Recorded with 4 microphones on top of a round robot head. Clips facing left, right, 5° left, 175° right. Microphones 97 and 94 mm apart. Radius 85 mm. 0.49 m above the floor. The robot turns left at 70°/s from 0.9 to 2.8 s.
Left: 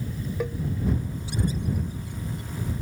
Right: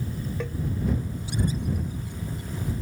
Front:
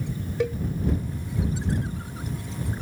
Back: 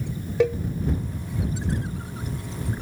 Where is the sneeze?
No sneeze in this recording.